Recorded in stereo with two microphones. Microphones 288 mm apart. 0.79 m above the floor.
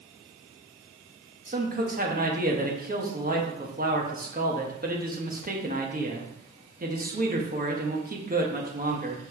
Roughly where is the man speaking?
Right.